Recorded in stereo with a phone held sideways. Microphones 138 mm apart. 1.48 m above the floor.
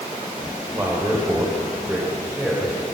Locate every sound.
0.7 s a man speaking: 20° right (ahead or behind), 7.5 m; by 2.9 s 10° right (ahead or behind), 8 m